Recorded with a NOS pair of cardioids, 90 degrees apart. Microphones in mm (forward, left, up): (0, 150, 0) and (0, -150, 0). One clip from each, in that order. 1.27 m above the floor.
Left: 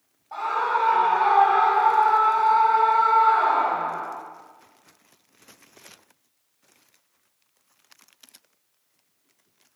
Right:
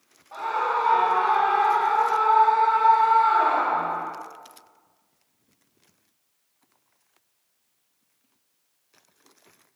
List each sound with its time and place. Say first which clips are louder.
0.3 s a scream: left 1 dB; 5° left, 3.5 m; by 4.1 s 50° right, 3 m